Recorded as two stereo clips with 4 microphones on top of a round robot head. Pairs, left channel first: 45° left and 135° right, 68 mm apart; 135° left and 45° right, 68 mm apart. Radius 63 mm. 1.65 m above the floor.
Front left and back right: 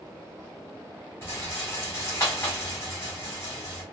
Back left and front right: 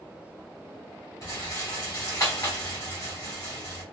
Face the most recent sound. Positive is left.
turn(degrees=95)